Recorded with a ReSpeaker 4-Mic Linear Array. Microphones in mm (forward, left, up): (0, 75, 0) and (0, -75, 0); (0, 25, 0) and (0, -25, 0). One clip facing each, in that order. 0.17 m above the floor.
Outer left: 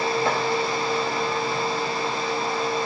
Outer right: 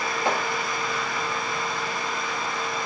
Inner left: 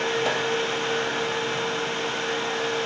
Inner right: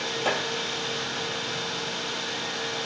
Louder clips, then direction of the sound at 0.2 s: Outer right 3 dB, inner left 1 dB; 15° right (ahead or behind).